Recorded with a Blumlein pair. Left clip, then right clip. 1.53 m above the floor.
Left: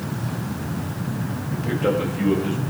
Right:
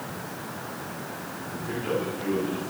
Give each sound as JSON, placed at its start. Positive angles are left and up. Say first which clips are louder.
{"t": 1.5, "sound": "a man speaking", "louder": "left 7 dB", "azimuth_deg": 45, "distance_m": 7.5}